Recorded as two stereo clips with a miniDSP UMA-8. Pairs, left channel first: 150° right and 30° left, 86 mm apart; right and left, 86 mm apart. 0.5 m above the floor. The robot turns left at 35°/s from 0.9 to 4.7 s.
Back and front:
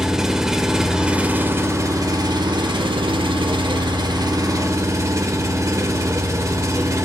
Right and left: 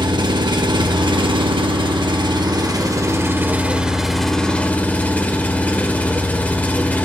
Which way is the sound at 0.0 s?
115° left.